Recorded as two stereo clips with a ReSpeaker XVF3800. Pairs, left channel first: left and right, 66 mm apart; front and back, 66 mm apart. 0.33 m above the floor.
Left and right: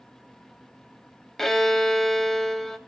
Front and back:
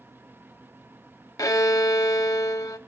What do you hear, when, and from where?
1.4 s a violin: 5° left, 0.7 m